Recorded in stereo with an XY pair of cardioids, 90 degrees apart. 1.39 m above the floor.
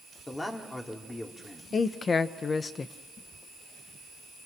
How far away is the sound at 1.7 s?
About 1.4 m.